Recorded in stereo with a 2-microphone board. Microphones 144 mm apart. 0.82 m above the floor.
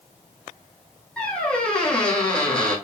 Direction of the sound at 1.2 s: 5° left (ahead or behind).